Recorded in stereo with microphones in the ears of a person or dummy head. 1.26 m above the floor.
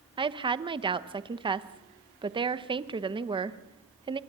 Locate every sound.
0.2 s a woman speaking: 20° right (ahead or behind), 0.9 m